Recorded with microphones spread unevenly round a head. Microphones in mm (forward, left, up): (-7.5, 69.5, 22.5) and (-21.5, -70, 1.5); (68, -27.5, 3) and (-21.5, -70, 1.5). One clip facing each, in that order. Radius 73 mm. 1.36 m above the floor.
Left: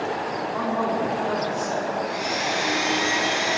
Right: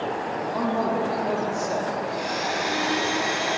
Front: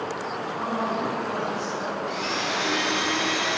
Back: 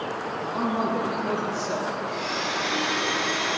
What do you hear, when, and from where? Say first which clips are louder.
0.5 s a man speaking: right 1 dB, back 3 dB; 160° right, 3 m
2.1 s a blender: left 1 dB, front 1 dB; 15° left, 3 m